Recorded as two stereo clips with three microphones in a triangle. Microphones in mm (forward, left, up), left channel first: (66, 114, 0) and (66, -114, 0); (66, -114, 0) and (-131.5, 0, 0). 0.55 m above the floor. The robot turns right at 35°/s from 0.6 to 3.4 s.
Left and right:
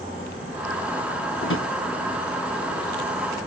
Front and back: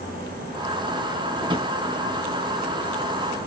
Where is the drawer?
85° left, 0.6 m; by 1.7 s 95° left, 0.6 m.